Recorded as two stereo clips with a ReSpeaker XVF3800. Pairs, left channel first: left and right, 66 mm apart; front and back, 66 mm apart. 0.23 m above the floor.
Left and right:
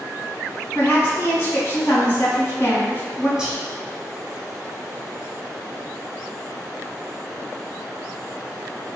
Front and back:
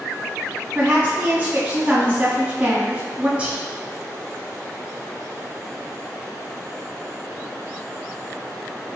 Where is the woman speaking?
120° left, 1.6 m.